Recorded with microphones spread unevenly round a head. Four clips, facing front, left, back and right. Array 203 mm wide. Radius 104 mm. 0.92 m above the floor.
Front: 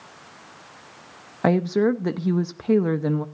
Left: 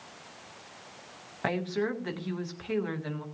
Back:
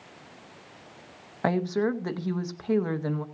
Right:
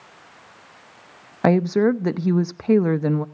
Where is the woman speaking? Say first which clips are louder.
Right 13 dB, front 6 dB; 60° right, 0.7 m.